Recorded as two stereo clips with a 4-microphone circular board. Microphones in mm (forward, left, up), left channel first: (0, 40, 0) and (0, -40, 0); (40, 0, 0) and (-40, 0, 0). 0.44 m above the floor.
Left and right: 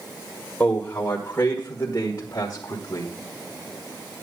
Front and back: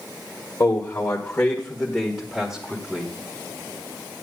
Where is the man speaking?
30° left, 1.6 m; by 3.1 s 110° left, 1.6 m.